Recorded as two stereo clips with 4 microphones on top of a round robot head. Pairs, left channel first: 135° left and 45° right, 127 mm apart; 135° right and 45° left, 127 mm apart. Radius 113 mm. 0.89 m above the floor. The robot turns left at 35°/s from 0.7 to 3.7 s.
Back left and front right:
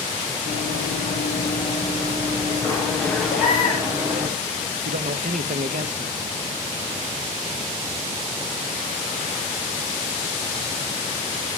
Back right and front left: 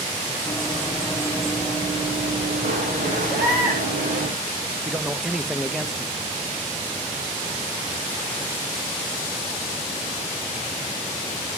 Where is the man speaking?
45° right, 0.8 m.